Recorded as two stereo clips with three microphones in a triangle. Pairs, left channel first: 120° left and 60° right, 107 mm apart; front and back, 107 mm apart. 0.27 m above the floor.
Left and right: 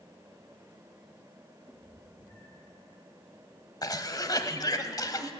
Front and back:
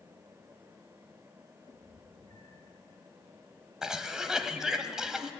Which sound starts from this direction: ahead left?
A cat meowing, at 1.7 s.